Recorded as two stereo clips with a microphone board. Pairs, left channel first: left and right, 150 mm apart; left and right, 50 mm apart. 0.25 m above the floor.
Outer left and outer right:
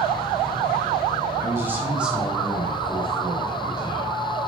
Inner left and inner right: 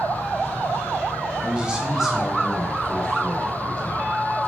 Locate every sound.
1.4 s a man speaking: 20° right (ahead or behind), 1.5 m; by 4.1 s 30° left (ahead or behind), 2.0 m